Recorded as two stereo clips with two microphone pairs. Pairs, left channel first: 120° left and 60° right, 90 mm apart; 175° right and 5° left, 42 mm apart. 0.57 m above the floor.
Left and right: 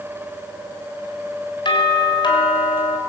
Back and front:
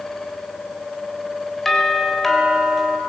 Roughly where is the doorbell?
Left.